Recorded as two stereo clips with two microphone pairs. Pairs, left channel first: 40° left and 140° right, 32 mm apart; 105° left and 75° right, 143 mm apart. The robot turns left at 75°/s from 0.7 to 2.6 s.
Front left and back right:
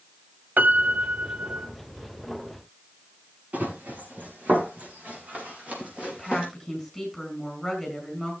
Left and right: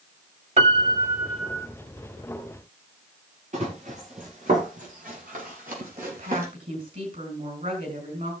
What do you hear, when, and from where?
0.6 s a piano: 115° right, 1.0 m; by 1.7 s 175° left, 1.0 m
3.5 s running footsteps: 110° right, 5.5 m; by 6.5 s 85° right, 5.5 m
6.1 s a woman speaking: 55° right, 5 m